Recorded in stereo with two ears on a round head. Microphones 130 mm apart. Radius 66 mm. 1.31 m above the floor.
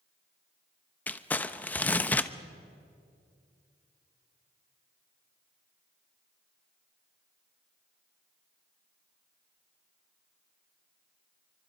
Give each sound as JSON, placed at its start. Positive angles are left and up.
{"t": 1.1, "sound": "crumpling", "side_deg": 10, "distance_m": 0.6}